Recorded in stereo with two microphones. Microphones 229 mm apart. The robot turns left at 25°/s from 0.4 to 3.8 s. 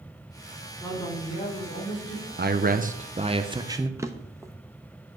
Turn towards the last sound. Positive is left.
turn(degrees=-10)  # may be behind; listen again after turning